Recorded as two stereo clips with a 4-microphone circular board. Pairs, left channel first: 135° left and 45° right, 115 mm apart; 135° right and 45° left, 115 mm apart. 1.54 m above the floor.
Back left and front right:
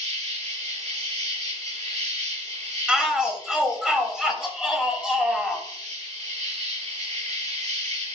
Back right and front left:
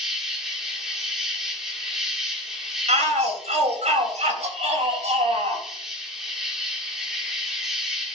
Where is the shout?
40° left, 3 m.